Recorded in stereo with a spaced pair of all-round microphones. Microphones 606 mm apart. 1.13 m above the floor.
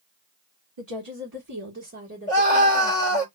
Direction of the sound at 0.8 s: 50° right (ahead or behind).